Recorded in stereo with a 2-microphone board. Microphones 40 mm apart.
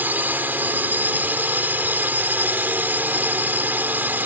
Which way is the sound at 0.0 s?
50° right (ahead or behind).